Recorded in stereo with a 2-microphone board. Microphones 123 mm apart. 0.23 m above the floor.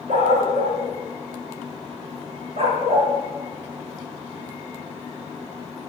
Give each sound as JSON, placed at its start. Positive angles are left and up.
{"t": 0.1, "sound": "a dog barking", "side_deg": -75, "distance_m": 7.5}